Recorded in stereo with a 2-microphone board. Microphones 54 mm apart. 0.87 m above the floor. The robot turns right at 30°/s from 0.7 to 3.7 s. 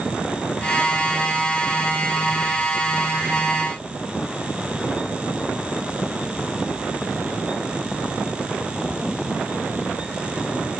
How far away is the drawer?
No drawer in this recording.